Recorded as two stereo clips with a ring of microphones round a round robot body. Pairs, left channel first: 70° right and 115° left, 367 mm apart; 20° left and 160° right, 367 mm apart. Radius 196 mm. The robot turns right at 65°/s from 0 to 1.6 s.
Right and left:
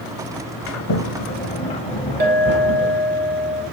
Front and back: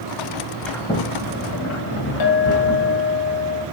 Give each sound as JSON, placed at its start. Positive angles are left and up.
{"t": 0.7, "sound": "a sliding door", "azimuth_deg": -65, "distance_m": 0.6}
{"t": 2.2, "sound": "a clink", "azimuth_deg": 50, "distance_m": 1.5}